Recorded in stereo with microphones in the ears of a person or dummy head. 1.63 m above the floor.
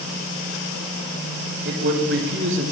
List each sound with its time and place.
1.6 s a man speaking: 70° right (ahead or behind), 2.5 m